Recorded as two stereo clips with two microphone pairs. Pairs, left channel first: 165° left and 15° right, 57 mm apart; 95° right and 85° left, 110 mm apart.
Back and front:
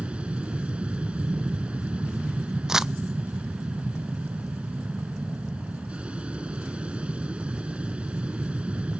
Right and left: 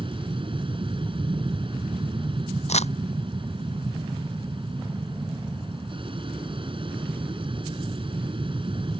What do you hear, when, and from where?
0.0 s an aircraft: 55° left
2.7 s crumpling: 95° right